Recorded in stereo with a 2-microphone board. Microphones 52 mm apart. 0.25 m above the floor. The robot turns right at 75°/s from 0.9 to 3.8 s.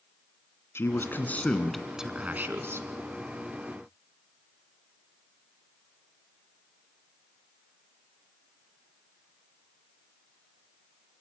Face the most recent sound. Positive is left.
turn(degrees=-30)